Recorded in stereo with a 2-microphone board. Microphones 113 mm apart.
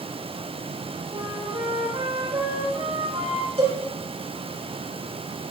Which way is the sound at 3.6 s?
60° right (ahead or behind).